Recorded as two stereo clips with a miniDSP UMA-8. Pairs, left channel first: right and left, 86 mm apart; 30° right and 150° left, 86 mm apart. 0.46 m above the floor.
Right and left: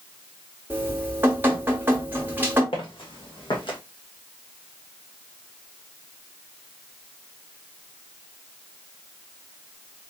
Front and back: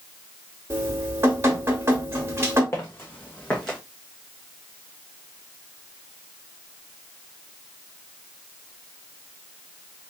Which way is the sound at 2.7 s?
90° right.